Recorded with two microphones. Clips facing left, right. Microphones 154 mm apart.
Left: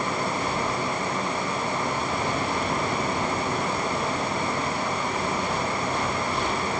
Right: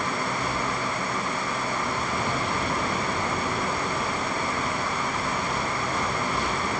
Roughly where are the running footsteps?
I don't hear running footsteps.